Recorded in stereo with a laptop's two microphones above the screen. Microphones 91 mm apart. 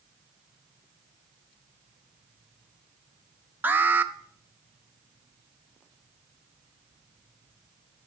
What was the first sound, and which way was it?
An alarm, 20° right (ahead or behind).